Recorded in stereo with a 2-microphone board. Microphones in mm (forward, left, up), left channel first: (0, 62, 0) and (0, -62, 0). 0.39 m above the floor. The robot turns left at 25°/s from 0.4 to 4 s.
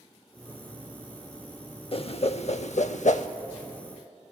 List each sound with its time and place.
1.9 s a whoosh: 50° left (ahead or behind), 0.5 m; by 3.3 s 75° left (ahead or behind), 0.5 m